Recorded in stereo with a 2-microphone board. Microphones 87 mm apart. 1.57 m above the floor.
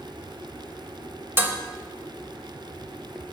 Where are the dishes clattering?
25° right (ahead or behind), 1.1 m.